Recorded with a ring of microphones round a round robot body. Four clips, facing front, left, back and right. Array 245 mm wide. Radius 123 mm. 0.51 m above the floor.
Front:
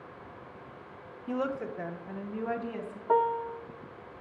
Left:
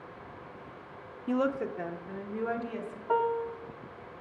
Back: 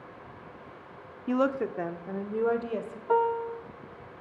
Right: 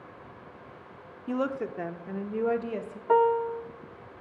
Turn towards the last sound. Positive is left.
turn(degrees=-70)